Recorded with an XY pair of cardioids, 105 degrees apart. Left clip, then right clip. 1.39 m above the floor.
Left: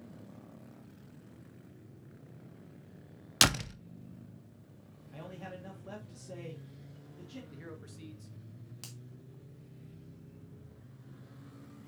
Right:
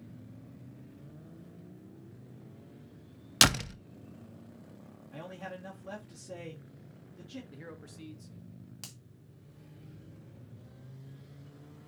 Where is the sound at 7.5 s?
10° right, 1.6 m.